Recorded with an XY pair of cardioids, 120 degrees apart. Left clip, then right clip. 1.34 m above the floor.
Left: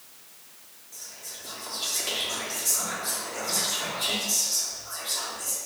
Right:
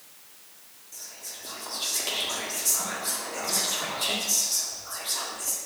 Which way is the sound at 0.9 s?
20° right.